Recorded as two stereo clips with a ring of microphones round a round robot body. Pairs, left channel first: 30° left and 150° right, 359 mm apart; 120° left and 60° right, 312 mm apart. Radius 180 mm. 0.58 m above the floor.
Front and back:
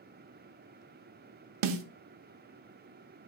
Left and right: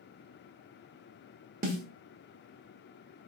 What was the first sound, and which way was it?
A snare drum, 125° right.